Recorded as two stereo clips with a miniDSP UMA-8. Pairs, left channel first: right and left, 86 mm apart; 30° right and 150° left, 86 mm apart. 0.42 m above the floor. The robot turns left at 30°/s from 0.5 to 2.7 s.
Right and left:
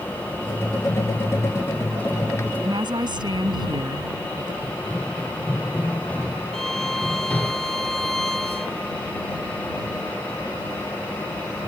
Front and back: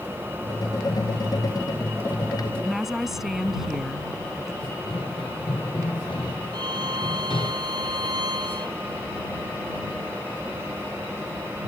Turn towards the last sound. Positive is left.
turn(degrees=-175)